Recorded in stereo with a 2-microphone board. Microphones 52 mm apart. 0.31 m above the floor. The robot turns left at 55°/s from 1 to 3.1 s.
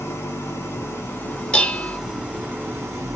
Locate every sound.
0.0 s an engine running: 45° left, 2.5 m; by 3.2 s 70° right, 2.5 m
1.5 s dishes clattering: 20° left (ahead or behind), 0.7 m; by 2.0 s 30° left (ahead or behind), 0.7 m